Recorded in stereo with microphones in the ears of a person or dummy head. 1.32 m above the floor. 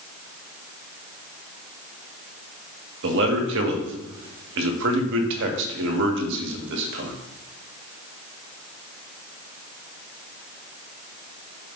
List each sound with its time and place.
3.0 s a man speaking: 65° right (ahead or behind), 1.7 m